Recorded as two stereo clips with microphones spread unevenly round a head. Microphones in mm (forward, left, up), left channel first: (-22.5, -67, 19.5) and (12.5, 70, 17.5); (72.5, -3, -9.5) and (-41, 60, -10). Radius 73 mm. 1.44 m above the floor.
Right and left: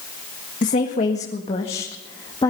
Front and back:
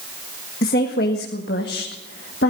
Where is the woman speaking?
65° right, 1.6 m; by 2.5 s 40° right, 2 m.